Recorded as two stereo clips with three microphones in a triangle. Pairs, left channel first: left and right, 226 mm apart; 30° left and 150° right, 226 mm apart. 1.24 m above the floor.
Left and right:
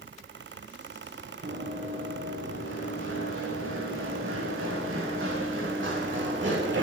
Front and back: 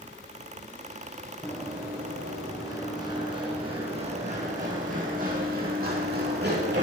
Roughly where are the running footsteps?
Ahead right.